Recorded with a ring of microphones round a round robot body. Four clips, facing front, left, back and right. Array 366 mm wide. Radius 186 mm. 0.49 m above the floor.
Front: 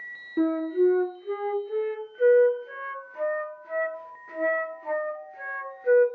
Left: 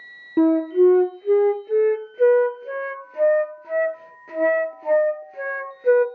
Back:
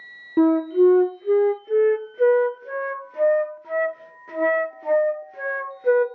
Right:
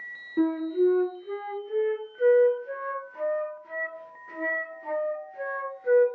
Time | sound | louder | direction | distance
0.4 | a flute | left 8 dB, back 6 dB | 130° left | 0.7 m